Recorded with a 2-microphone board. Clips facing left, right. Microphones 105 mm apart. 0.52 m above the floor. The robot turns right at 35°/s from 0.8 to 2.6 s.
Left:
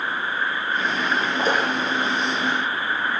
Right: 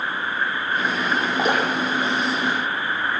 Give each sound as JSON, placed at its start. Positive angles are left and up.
{"t": 1.4, "sound": "dripping", "side_deg": -75, "distance_m": 7.5}